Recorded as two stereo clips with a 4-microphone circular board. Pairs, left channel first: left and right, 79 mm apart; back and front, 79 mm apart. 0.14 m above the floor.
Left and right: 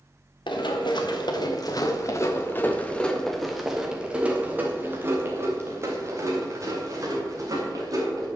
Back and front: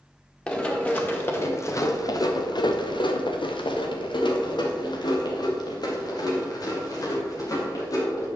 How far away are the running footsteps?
About 2.5 m.